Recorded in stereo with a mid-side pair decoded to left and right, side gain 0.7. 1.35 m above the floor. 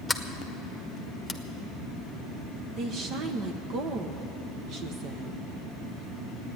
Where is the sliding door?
5° left, 1.2 m.